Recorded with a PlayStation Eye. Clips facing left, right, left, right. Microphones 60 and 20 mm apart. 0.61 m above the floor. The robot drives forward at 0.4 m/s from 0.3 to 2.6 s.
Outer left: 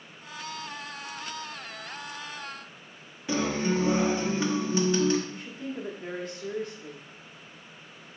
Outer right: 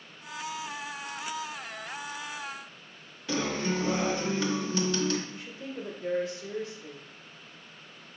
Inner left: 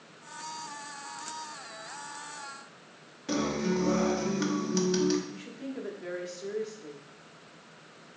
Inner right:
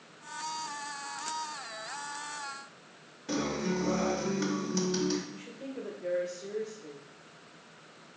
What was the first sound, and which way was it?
A guitar, 25° left (ahead or behind).